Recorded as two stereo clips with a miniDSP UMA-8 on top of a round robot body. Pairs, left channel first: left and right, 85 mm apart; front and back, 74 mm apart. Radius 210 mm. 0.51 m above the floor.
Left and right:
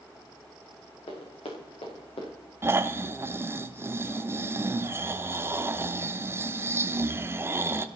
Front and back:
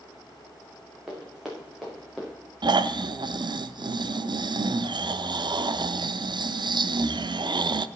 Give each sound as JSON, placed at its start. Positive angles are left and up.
{"t": 1.1, "sound": "running footsteps", "azimuth_deg": 100, "distance_m": 4.5}
{"t": 2.6, "sound": "snoring", "azimuth_deg": -155, "distance_m": 0.6}